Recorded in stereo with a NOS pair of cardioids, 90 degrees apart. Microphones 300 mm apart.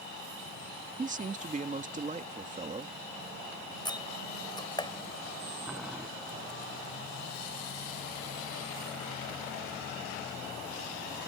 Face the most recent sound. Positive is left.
turn(degrees=-5)